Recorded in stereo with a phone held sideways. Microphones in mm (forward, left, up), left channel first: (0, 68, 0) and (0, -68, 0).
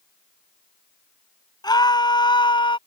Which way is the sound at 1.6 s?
30° left (ahead or behind).